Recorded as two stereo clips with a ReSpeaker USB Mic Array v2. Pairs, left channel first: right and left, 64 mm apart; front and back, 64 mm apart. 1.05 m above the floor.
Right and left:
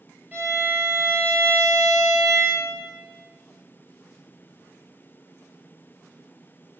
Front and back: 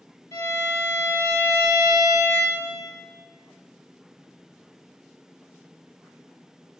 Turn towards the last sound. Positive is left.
turn(degrees=30)